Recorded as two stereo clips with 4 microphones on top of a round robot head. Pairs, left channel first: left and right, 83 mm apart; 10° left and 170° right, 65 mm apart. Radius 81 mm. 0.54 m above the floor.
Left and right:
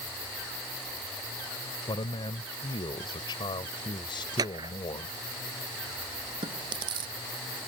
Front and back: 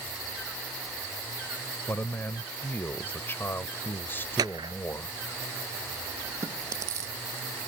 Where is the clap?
135° right.